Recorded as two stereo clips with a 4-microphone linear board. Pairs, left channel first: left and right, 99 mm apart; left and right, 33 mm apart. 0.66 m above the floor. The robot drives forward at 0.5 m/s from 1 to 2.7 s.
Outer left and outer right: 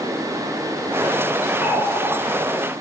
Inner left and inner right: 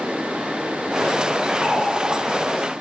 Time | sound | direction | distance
1.6 | a running tap | 70° left (ahead or behind) | 3.5 m